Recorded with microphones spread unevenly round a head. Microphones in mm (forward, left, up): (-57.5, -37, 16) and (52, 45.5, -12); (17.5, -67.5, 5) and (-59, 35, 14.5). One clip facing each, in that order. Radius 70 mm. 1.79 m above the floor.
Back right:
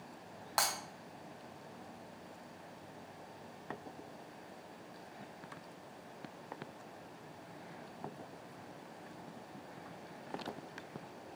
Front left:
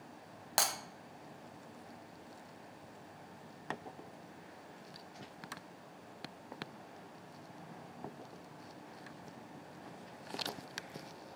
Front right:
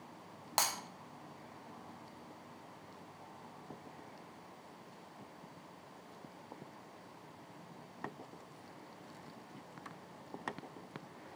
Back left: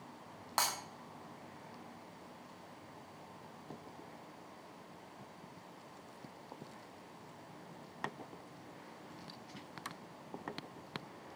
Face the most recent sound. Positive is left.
turn(degrees=0)